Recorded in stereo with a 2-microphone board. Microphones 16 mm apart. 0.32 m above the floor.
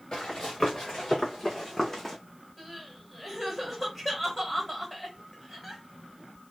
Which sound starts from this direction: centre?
Crying, at 2.6 s.